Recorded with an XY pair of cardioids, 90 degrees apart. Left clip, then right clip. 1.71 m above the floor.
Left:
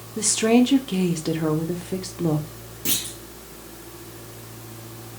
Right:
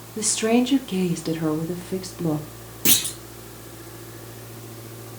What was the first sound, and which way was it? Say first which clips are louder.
A woman speaking: left 2 dB; 5° left.